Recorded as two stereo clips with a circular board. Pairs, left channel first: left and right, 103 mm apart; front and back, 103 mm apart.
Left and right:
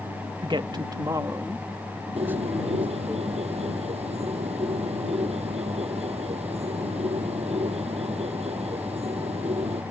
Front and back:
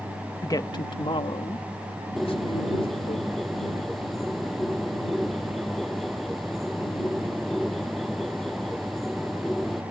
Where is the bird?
90° right.